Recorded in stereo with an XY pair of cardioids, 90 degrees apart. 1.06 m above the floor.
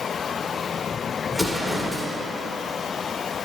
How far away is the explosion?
About 2 m.